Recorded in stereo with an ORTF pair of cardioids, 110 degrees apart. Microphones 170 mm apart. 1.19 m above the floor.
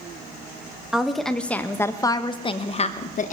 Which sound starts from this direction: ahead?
A woman speaking, at 0.9 s.